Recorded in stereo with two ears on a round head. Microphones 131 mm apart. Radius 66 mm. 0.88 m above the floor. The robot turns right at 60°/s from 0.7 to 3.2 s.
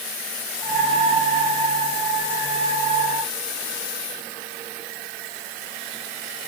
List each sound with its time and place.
Only background noise.